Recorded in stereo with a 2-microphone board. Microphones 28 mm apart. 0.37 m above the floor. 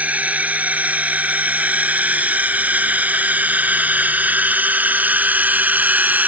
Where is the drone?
55° right (ahead or behind); by 6.3 s 75° right (ahead or behind).